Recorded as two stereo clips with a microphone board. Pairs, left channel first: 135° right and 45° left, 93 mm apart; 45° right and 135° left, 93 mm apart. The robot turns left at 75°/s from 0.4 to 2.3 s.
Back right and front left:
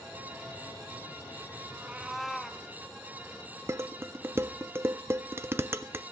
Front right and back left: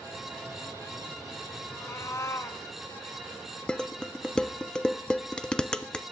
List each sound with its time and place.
1.7 s a cat meowing: straight ahead, 1.0 m; by 2.6 s 45° right, 1.0 m
3.7 s dishes clattering: 25° left, 0.5 m